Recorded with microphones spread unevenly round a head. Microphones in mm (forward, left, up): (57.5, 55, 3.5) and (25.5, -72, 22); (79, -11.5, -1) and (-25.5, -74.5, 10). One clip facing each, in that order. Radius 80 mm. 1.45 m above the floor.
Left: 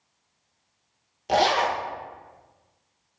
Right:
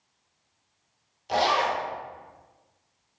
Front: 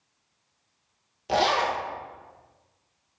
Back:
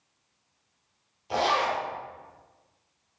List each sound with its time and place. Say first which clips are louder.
1.3 s a zipper: left 3 dB, front 2 dB; 50° left, 1.3 m